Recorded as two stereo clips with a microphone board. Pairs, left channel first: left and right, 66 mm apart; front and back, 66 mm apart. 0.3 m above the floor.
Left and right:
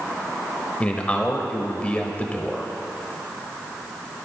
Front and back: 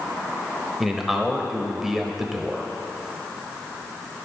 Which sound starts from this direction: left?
A man speaking, at 0.8 s.